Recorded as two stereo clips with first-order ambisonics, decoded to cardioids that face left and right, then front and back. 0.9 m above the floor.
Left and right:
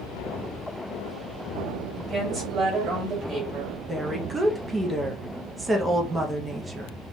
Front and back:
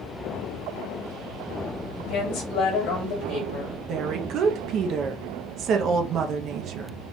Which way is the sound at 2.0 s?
30° right.